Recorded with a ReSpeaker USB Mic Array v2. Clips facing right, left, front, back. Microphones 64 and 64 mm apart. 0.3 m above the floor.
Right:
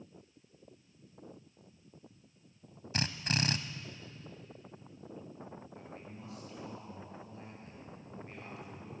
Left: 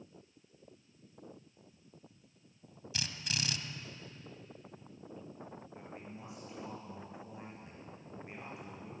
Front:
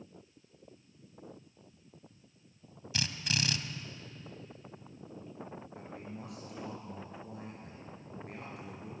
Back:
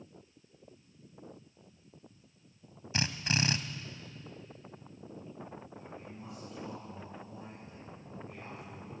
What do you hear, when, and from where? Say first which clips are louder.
2.9 s a drill: right 6 dB, back 3 dB; 125° right, 1.2 m
5.8 s a man speaking: even, front 2 dB; 20° left, 6 m